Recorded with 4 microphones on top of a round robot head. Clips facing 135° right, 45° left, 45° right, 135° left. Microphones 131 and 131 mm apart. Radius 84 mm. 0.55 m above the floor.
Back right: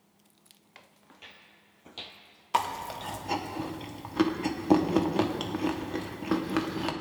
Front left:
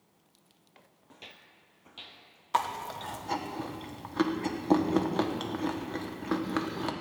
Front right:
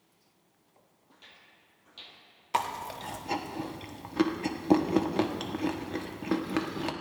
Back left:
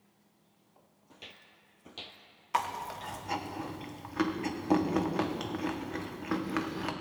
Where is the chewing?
65° right, 1.3 m.